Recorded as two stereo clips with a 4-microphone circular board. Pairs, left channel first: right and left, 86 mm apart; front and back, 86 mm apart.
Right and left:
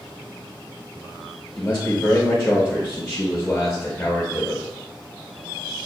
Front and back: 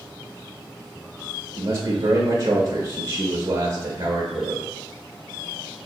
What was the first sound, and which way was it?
A man speaking, 150° right.